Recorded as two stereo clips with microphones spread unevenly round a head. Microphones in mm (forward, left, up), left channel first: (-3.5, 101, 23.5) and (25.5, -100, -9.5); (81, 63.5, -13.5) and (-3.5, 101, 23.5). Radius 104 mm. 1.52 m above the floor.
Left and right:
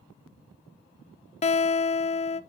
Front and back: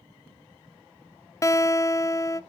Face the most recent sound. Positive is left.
turn(degrees=40)